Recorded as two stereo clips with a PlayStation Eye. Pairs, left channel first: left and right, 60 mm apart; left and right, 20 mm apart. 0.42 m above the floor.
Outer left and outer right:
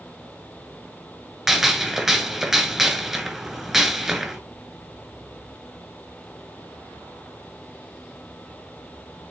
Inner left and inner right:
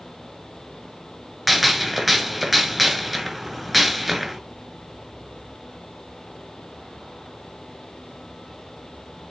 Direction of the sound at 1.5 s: 5° right (ahead or behind).